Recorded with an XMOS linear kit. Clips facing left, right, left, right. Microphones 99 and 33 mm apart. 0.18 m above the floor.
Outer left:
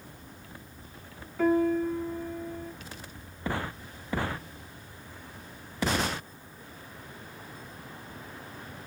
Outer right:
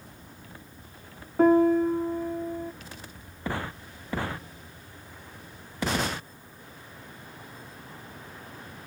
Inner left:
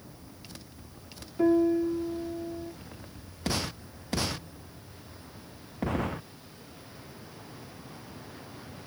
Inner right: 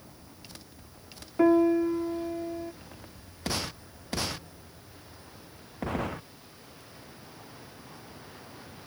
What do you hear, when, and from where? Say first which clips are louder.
1.4 s a piano: outer right 5 dB, inner right 2 dB; 45° right (ahead or behind), 0.6 m